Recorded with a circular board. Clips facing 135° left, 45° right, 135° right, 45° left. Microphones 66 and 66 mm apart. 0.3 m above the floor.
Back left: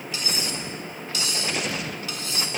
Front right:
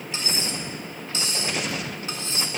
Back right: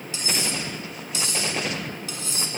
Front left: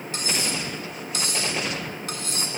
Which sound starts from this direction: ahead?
Cutlery clinking, at 0.1 s.